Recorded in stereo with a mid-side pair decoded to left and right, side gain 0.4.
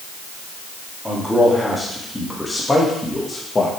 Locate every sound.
1.1 s a man speaking: 5° left, 3 m; by 3.7 s 30° left, 1.8 m